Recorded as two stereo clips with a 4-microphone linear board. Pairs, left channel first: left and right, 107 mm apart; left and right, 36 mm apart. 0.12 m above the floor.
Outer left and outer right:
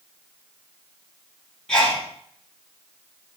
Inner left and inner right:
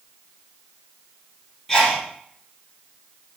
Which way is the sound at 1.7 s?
5° left (ahead or behind).